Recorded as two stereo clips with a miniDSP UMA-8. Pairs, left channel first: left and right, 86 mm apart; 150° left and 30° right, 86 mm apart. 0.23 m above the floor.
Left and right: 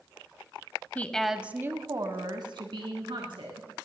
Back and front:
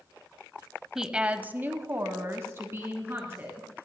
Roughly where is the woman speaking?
Ahead left.